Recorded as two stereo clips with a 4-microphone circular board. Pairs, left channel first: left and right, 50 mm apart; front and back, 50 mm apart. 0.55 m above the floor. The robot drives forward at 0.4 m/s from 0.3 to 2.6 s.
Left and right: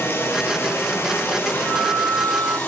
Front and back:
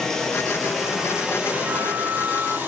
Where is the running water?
80° left, 0.9 m; by 2.7 s 135° left, 1.2 m.